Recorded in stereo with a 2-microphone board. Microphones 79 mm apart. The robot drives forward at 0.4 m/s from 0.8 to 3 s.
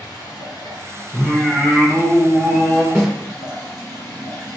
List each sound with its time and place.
0.0 s running water: 60° left (ahead or behind), 1.4 m; by 4.6 s 40° left (ahead or behind), 2.0 m
1.1 s singing: centre (ahead or behind), 1.2 m
3.0 s a snare drum: 15° right (ahead or behind), 2 m